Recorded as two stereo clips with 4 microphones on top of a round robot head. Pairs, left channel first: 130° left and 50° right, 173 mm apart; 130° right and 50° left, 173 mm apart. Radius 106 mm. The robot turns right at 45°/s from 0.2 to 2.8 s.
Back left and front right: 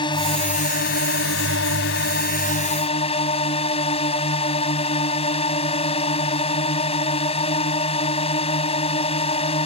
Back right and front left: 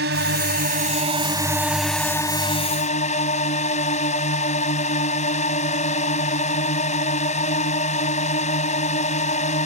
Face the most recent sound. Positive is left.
turn(degrees=-175)